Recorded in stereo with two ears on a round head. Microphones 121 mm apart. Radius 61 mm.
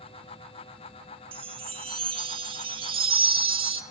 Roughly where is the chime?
Right.